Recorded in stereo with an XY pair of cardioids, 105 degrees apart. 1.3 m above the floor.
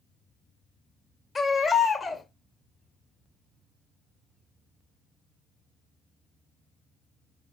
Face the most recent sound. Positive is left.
turn(degrees=35)